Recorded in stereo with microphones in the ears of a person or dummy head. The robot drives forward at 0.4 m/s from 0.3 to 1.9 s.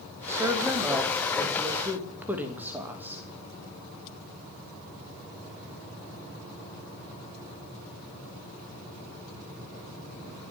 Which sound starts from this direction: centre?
A woman speaking, at 0.3 s.